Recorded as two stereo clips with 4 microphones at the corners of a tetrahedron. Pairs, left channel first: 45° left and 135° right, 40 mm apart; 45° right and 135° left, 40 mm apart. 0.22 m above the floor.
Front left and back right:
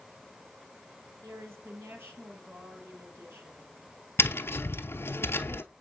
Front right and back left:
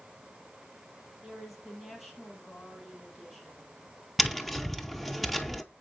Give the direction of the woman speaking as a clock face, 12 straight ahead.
4 o'clock.